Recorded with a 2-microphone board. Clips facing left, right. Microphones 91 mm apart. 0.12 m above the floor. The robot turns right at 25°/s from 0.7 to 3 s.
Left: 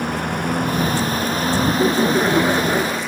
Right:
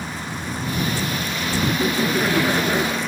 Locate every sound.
0.0 s a lawn mower: 120° left; by 3.1 s 175° left
1.6 s laughter: 135° left; by 3.0 s 170° left